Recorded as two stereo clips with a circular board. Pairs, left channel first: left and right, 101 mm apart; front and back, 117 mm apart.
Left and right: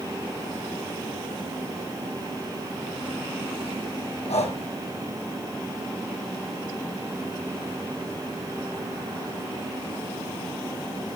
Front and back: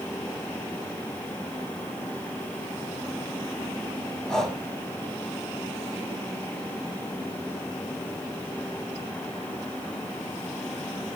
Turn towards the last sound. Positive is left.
turn(degrees=85)